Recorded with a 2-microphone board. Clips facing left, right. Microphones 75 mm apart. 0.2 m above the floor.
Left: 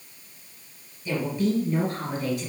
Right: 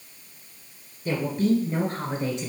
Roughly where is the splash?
No splash in this recording.